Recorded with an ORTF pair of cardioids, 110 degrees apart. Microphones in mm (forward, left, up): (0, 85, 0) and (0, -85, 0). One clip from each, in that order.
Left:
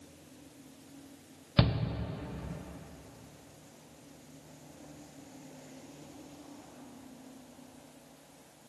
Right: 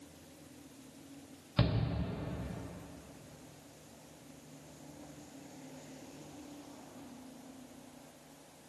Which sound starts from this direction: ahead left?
A shout, at 1.6 s.